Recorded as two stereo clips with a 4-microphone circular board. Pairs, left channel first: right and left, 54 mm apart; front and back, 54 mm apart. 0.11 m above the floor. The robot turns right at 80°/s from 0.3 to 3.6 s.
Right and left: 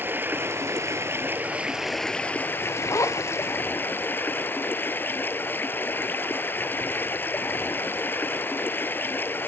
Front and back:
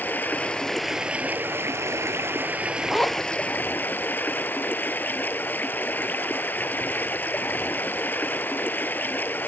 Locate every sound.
0.0 s running water: 50° left, 0.8 m; by 9.5 s 45° right, 0.8 m
2.9 s a zipper: 90° right, 1.5 m; by 3.4 s 45° right, 1.5 m